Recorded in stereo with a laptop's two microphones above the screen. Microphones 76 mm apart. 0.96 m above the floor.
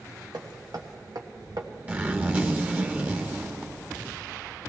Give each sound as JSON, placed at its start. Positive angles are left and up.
{"t": 0.3, "sound": "hammering", "side_deg": -65, "distance_m": 1.2}
{"t": 1.9, "sound": "a zipper", "side_deg": -20, "distance_m": 1.5}